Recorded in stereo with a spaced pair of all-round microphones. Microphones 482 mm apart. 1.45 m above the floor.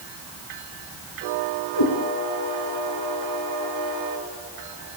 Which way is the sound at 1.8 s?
55° left (ahead or behind).